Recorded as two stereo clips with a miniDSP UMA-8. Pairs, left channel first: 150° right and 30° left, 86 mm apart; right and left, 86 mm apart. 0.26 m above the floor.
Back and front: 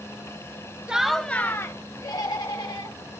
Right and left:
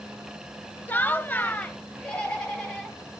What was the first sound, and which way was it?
Laughter, 40° right.